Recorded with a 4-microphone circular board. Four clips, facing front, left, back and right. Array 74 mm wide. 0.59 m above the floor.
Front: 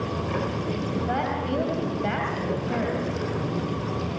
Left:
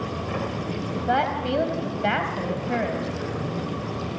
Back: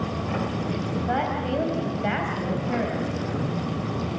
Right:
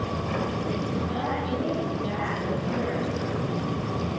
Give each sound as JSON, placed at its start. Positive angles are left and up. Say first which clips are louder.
{"t": 1.1, "sound": "a woman speaking", "louder": "left 5 dB, back 2 dB", "azimuth_deg": 95, "distance_m": 3.5}